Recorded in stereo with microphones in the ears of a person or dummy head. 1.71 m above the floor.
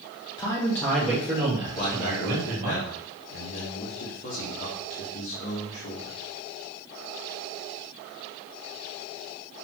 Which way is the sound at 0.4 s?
20° left (ahead or behind).